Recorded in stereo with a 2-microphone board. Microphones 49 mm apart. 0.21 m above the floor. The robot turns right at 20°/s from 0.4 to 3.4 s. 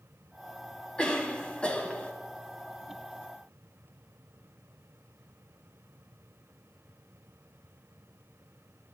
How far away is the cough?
About 1.3 m.